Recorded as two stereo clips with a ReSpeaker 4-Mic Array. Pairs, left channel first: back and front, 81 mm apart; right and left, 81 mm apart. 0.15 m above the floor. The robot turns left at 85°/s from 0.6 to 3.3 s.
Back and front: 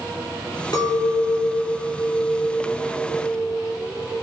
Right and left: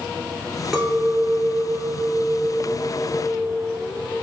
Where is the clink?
175° left, 1.4 m; by 4.2 s 45° right, 1.4 m.